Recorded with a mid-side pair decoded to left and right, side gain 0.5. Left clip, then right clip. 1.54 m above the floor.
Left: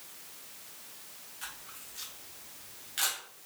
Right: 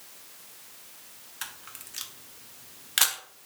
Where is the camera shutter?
70° right, 0.8 m.